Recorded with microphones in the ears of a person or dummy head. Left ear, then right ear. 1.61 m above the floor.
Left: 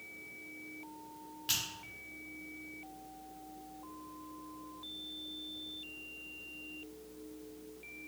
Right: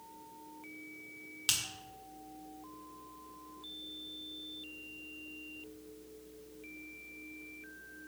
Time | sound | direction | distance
1.5 | a finger snap | 40° right (ahead or behind) | 1.0 m